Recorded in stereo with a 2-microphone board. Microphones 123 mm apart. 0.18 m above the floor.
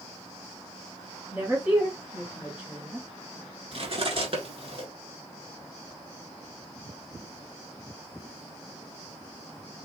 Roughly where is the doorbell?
I don't hear a doorbell.